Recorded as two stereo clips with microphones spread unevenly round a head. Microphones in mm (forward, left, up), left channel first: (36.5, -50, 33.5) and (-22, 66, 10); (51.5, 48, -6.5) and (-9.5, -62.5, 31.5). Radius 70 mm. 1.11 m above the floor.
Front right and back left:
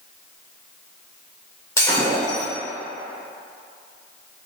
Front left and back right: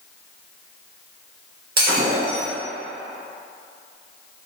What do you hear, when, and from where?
1.8 s breaking glass: 135° right, 2.5 m